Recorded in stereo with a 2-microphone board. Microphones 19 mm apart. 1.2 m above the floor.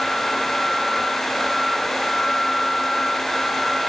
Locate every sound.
Only background noise.